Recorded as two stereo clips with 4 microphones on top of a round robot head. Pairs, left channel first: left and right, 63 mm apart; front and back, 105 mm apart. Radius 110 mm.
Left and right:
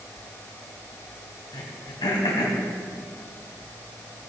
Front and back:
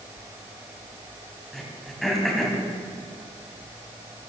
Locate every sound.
1.5 s throat clearing: 90° left, 1.8 m